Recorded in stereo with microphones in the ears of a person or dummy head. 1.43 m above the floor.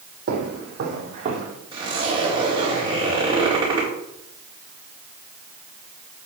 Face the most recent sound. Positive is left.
turn(degrees=-20)  # may be behind; listen again after turning